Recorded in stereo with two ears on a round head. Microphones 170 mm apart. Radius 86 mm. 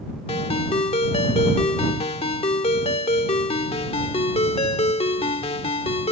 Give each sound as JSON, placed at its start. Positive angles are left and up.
{"t": 0.3, "sound": "a ringtone", "side_deg": 30}